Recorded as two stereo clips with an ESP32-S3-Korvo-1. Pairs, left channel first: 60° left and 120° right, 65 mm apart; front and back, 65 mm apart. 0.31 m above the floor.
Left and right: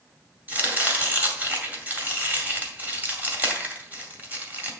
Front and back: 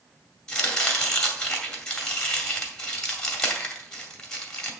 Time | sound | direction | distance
0.5 | chopping | 70° right | 2.0 m